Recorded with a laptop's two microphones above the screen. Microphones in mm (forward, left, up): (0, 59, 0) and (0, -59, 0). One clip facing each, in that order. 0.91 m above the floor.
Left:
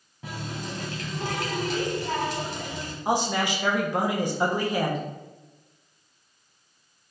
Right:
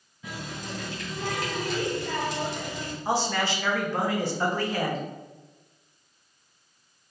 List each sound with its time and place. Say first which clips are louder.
0.2 s a running tap: left 2 dB; 55° left (ahead or behind), 1.6 m
3.0 s a man speaking: left 2 dB; 15° left (ahead or behind), 0.7 m